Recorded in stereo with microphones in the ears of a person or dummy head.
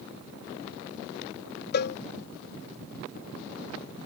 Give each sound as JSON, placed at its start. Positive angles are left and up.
{"t": 1.7, "sound": "a cowbell", "side_deg": 55}